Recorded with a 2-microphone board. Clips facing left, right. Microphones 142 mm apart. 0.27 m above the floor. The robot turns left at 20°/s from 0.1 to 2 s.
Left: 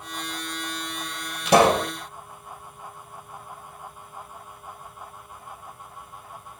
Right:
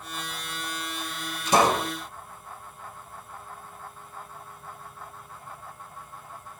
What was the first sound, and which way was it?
A pop, 70° left (ahead or behind).